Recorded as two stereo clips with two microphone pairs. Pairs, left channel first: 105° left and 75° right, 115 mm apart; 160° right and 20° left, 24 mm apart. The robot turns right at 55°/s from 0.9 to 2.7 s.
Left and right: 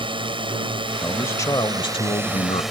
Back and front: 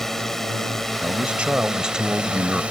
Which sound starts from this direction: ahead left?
A man speaking, at 1.0 s.